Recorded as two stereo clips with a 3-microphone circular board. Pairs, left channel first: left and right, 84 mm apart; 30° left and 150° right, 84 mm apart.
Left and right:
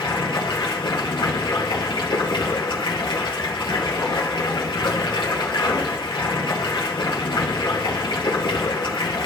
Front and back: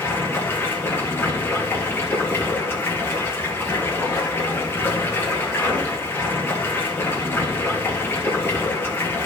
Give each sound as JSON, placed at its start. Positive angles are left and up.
{"t": 0.0, "sound": "running water", "azimuth_deg": 90, "distance_m": 2.5}